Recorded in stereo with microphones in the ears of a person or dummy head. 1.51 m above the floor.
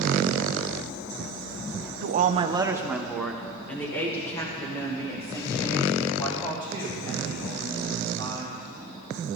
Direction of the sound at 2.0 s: 50° right (ahead or behind).